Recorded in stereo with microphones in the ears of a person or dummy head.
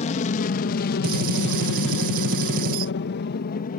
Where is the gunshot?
55° right (ahead or behind).